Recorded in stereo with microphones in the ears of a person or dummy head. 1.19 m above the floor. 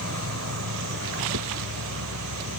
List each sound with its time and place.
0.0 s an insect: 80° right
1.3 s a whoosh: 75° right (ahead or behind)